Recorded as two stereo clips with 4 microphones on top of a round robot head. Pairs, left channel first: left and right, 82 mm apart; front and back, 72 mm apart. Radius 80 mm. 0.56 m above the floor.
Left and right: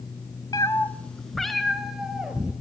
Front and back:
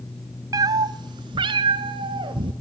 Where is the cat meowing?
155° left, 0.6 m; by 2.5 s 170° right, 1.8 m.